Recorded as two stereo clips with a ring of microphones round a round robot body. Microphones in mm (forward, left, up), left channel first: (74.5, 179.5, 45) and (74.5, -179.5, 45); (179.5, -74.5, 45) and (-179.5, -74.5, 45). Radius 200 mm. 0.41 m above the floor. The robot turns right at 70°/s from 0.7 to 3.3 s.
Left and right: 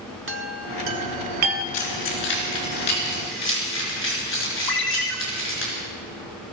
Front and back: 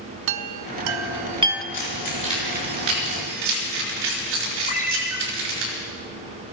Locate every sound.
0.3 s a chime: 155° right, 0.9 m; by 1.6 s 90° right, 0.9 m
1.7 s keys jangling: 40° left, 4.5 m; by 5.7 s 150° left, 4.5 m
4.7 s a ringtone: 70° left, 2.0 m